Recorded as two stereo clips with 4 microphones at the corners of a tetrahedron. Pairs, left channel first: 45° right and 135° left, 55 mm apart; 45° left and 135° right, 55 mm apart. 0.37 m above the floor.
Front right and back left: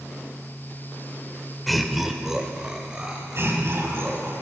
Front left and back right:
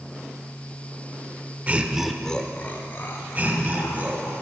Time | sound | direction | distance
1.7 | laughter | 135° right | 0.8 m
3.4 | laughter | 165° left | 2.5 m